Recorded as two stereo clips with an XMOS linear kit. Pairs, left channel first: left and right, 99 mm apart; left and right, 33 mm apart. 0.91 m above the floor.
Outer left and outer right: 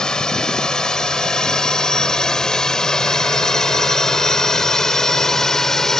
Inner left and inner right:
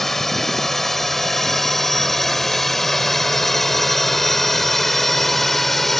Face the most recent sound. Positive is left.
turn(degrees=5)  # may be behind; listen again after turning